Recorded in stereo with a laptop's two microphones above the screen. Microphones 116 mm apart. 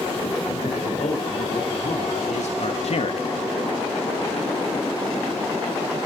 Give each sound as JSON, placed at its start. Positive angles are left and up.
{"t": 0.6, "sound": "a man speaking", "side_deg": 85, "distance_m": 5.0}